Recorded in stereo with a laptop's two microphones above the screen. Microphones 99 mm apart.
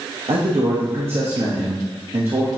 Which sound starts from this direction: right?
A man speaking, at 0.3 s.